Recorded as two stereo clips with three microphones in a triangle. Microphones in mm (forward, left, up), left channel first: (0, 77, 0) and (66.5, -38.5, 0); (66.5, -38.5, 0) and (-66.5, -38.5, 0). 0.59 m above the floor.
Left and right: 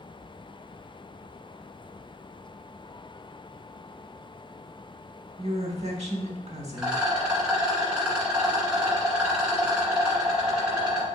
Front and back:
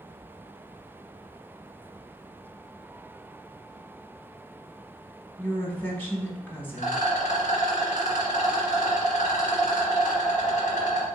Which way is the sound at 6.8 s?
25° left.